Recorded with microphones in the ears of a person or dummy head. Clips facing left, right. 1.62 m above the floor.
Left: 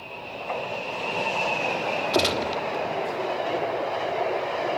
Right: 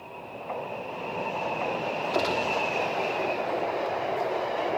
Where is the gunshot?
40° left (ahead or behind), 3 m.